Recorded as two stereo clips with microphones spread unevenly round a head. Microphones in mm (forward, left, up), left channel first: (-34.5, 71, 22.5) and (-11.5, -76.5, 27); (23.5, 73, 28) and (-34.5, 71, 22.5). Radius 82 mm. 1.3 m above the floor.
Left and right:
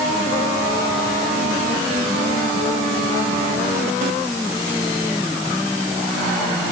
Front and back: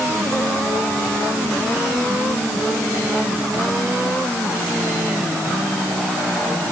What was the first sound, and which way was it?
Only background noise.